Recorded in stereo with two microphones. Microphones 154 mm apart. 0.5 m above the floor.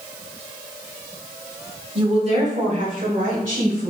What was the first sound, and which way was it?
A woman speaking, 35° right (ahead or behind).